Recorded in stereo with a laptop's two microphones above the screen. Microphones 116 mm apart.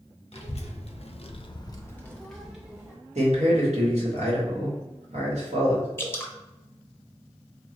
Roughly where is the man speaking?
Right.